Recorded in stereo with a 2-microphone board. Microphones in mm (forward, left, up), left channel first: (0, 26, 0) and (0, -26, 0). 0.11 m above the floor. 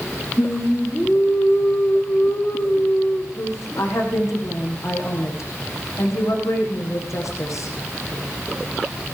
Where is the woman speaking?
70° left (ahead or behind), 7 m.